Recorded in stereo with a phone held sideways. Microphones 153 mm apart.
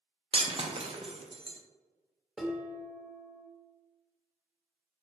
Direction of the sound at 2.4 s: 5° right (ahead or behind).